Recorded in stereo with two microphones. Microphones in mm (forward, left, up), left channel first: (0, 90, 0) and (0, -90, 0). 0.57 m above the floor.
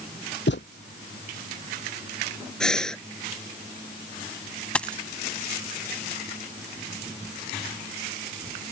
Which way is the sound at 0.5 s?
85° left.